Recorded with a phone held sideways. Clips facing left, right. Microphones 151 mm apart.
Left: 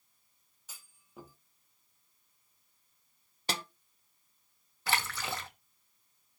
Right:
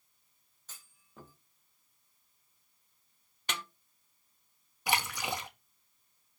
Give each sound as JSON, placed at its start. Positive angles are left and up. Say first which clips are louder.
{"t": 0.7, "sound": "a clunk", "louder": "left 2 dB", "side_deg": 10, "distance_m": 1.7}
{"t": 3.5, "sound": "a snare drum", "louder": "left 3 dB", "side_deg": 35, "distance_m": 0.6}
{"t": 4.9, "sound": "a splash", "louder": "right 1 dB", "side_deg": -15, "distance_m": 1.2}